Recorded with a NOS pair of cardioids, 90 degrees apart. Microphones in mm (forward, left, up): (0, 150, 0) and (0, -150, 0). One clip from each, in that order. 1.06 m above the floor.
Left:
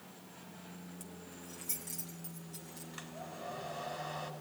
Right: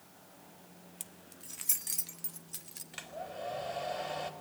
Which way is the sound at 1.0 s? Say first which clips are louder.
Left 2 dB; 60° right.